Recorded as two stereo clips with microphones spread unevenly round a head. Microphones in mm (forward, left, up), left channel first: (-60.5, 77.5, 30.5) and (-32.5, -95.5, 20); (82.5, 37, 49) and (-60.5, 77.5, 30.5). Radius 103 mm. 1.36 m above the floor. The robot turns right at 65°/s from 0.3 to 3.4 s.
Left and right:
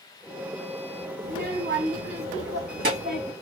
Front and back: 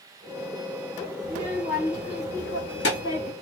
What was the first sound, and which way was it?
A child speaking, 135° right.